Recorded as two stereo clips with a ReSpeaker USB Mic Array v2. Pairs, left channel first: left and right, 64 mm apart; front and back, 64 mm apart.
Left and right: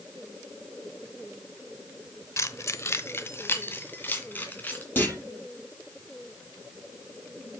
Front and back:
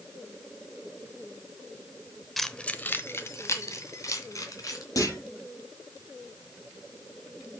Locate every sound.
2.4 s keys jangling: 90° left, 0.7 m; by 4.8 s 25° left, 3 m
5.0 s a clunk: 30° left, 7 m